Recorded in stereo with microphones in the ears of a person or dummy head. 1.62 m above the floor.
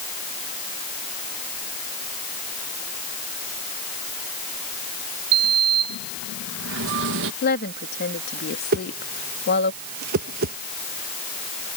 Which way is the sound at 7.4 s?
50° left (ahead or behind).